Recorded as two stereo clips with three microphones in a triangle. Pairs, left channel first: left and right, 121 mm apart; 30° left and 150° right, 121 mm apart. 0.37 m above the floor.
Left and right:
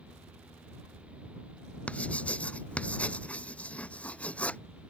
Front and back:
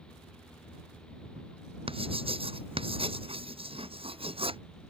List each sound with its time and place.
1.9 s writing: 170° left